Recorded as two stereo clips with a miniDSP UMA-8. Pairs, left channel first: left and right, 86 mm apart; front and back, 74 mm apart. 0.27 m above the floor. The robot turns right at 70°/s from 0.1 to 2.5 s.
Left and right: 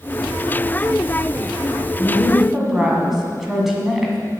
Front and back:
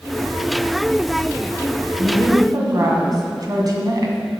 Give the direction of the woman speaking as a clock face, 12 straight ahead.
7 o'clock.